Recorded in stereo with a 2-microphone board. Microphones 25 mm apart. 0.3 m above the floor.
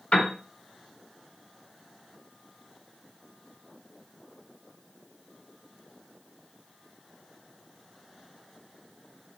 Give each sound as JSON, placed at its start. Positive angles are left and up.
{"t": 0.1, "sound": "a piano", "side_deg": 45, "distance_m": 2.0}